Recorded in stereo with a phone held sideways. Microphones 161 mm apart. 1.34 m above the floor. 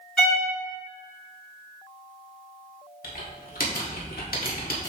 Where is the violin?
Centre (ahead or behind), 3 m.